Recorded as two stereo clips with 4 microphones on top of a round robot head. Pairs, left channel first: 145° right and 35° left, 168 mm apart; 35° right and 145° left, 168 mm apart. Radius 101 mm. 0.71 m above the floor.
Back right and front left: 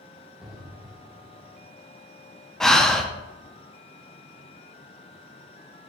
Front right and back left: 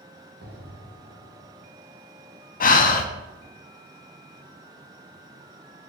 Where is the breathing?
60° right, 0.8 m.